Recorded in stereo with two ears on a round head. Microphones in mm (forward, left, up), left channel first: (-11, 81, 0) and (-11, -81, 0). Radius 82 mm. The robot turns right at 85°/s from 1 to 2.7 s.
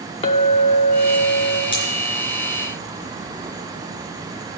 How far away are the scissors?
About 4 m.